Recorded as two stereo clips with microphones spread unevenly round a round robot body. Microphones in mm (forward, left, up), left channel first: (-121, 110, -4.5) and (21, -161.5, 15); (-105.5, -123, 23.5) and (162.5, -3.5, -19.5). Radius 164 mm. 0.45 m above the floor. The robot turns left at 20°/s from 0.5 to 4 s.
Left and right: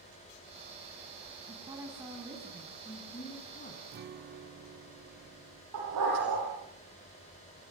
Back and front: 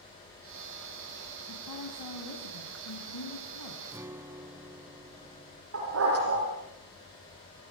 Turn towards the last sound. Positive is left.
turn(degrees=-15)